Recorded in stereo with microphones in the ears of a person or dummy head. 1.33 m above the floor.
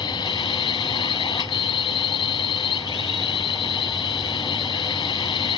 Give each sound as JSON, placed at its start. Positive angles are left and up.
{"t": 0.0, "sound": "a drone", "side_deg": 20}